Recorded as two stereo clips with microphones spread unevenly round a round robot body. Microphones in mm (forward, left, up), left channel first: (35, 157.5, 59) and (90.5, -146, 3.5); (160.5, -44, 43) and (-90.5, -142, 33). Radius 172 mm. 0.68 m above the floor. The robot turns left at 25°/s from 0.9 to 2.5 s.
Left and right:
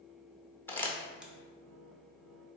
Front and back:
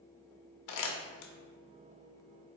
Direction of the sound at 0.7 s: 15° left.